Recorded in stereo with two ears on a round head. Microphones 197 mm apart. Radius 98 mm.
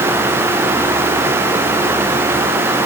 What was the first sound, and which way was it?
Only background noise.